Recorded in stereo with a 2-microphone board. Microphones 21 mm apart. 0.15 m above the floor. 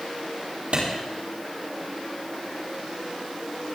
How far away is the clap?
About 4 m.